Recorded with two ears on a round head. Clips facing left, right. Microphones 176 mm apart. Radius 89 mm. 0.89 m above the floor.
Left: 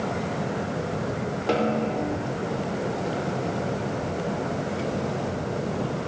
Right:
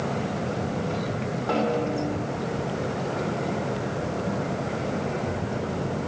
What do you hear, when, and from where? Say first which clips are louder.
1.5 s a snare drum: left 1 dB; 40° left (ahead or behind), 2.5 m